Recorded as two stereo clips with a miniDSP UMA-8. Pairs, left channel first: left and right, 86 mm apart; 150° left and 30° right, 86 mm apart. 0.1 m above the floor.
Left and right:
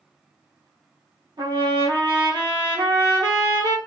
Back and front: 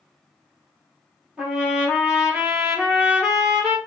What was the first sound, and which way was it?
A trumpet, 110° right.